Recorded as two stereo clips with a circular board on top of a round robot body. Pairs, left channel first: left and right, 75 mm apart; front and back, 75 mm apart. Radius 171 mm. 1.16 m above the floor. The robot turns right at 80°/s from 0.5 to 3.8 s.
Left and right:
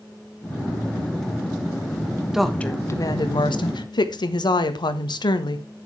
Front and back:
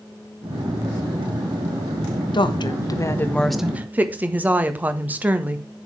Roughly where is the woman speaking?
Ahead.